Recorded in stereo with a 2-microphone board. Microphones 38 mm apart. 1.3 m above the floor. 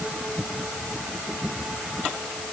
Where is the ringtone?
No ringtone in this recording.